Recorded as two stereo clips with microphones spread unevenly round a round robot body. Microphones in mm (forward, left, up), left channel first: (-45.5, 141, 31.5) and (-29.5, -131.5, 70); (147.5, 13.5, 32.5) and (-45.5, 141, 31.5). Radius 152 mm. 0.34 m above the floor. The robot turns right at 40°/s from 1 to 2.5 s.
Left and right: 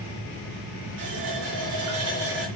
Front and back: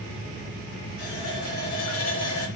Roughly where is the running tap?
Right.